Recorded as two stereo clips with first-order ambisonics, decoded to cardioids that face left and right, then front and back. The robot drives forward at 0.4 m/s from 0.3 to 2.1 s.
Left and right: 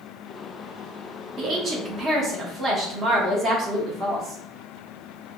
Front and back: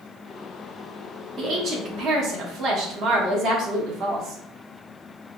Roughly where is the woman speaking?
Behind right.